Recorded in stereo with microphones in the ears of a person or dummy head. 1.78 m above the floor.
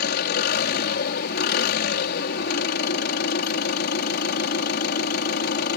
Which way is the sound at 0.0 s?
55° left (ahead or behind).